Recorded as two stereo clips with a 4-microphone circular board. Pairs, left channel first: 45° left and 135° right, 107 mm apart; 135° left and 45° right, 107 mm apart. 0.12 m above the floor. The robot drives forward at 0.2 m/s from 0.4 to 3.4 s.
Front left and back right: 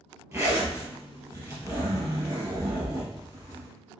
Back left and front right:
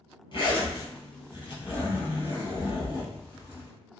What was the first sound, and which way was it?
A zipper, 160° left.